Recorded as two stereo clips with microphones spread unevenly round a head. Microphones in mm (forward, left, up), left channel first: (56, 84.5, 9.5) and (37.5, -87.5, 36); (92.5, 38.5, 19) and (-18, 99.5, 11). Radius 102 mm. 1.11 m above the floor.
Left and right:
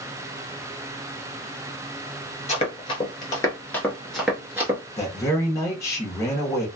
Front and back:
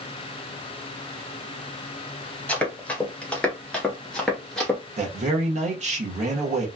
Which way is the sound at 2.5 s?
40° left.